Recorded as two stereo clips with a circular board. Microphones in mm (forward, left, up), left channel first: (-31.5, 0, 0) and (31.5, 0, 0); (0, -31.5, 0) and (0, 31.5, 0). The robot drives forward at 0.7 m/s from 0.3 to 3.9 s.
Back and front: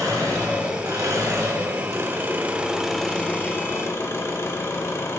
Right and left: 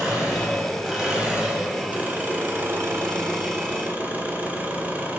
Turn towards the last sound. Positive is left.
turn(degrees=150)